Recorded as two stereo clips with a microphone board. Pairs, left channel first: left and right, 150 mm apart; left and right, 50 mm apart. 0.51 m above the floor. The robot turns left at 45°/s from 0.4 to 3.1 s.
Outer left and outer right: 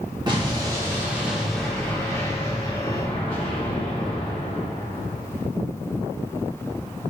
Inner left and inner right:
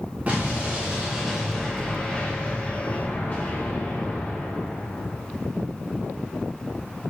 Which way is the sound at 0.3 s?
130° right.